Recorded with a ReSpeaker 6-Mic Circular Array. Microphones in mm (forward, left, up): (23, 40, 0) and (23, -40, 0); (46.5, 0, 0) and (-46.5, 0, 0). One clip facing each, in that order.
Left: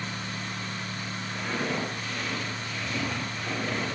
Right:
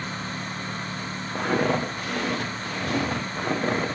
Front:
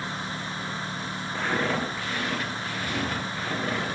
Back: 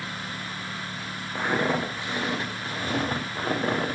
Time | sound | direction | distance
1.4 | footsteps | 105° right | 3 m